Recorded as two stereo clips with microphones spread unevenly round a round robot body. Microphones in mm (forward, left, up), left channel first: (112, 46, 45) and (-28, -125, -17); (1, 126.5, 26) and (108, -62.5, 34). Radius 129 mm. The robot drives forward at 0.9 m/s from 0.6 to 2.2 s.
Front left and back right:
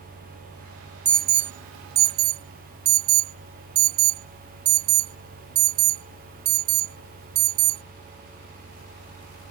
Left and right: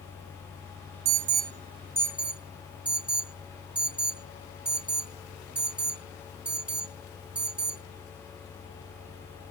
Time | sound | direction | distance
1.1 | an alarm | 85° right | ?